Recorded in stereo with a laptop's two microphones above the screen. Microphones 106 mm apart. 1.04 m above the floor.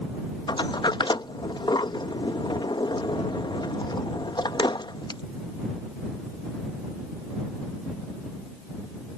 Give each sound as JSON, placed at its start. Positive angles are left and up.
{"t": 0.5, "sound": "a sliding door", "side_deg": 45}